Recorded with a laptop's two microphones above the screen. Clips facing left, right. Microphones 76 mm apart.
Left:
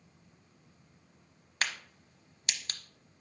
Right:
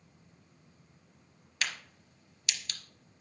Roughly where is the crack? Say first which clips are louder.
Left 2 dB; left.